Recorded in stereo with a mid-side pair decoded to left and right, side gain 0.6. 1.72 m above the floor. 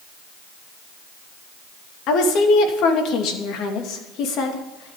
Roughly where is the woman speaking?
Ahead left.